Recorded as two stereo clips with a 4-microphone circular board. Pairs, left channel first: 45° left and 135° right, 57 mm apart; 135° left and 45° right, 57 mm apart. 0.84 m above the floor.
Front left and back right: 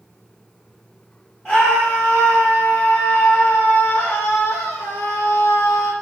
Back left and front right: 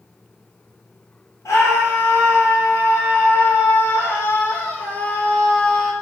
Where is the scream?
150° left, 3 m; by 5.9 s 50° left, 1.3 m.